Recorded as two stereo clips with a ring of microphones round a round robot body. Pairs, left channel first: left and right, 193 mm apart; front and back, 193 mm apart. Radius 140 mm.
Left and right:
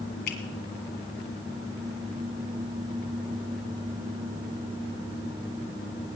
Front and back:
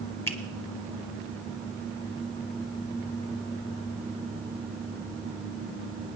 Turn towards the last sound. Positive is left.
turn(degrees=75)